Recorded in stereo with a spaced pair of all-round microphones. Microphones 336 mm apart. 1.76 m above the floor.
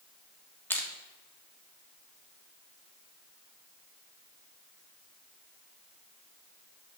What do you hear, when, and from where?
0.7 s crushing: 5° left (ahead or behind), 1.5 m